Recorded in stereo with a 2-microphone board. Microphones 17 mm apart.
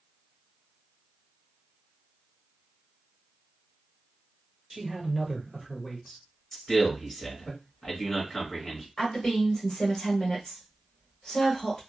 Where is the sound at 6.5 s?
35° left (ahead or behind), 1.7 m.